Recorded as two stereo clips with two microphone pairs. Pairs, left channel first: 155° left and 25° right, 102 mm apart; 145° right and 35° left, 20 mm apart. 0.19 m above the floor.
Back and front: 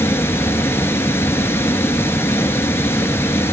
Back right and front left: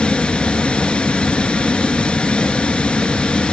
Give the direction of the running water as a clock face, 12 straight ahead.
5 o'clock.